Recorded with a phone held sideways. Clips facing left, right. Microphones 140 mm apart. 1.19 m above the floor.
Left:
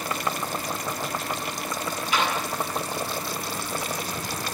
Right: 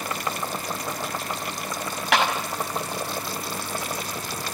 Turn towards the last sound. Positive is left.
turn(degrees=-90)